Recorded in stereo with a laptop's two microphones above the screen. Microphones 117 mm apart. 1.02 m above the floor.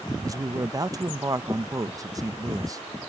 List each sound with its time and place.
0.2 s a man speaking: 30° right (ahead or behind)